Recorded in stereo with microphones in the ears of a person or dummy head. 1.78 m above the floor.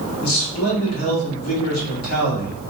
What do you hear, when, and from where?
0.2 s a man speaking: 85° left, 1.2 m